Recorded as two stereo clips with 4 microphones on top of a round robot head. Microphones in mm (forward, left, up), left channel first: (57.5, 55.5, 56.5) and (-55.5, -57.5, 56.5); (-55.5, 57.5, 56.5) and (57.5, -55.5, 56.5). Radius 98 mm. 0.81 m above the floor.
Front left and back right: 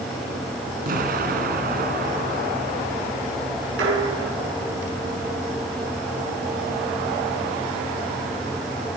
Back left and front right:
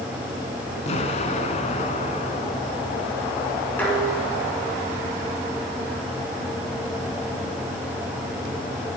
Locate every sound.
0.9 s an explosion: 170° right, 2 m
3.8 s dishes clattering: 145° right, 7 m